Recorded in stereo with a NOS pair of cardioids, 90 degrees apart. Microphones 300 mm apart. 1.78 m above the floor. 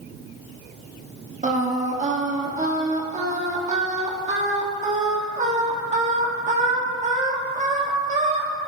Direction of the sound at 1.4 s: 25° right.